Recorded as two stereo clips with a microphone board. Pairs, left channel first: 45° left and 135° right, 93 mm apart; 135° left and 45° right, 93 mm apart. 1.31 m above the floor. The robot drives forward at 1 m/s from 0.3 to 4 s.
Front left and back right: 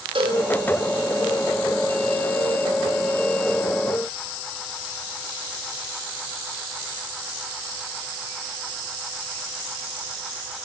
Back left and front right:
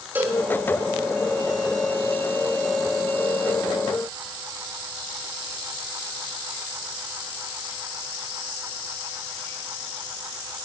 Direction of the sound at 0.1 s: 115° right.